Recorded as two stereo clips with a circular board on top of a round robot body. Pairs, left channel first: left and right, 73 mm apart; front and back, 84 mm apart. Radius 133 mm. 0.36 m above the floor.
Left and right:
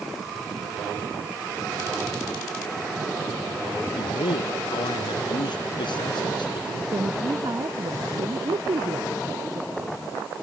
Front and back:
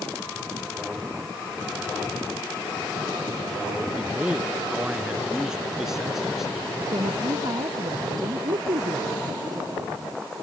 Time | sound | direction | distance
4.0 | a man speaking | 105° left | ?
6.9 | a woman speaking | 135° right | ?